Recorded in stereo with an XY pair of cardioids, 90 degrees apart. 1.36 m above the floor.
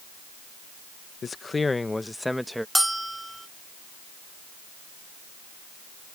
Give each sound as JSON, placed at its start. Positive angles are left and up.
{"t": 1.2, "sound": "a man speaking", "azimuth_deg": 45}
{"t": 2.8, "sound": "a bell", "azimuth_deg": -10}